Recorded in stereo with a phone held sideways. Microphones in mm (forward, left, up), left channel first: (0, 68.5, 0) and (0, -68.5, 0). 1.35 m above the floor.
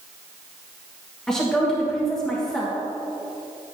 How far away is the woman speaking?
About 1.5 m.